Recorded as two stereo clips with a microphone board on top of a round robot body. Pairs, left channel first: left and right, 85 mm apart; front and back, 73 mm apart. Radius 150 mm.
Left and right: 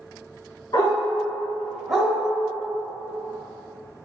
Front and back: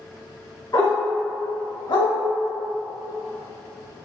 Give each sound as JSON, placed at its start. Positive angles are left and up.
{"t": 0.7, "sound": "a dog barking", "azimuth_deg": 50, "distance_m": 1.7}